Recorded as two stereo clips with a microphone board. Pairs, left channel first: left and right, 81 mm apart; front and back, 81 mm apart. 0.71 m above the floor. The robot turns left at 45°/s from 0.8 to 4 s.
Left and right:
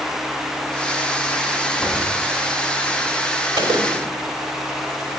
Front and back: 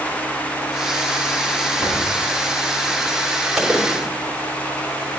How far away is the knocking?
About 5 m.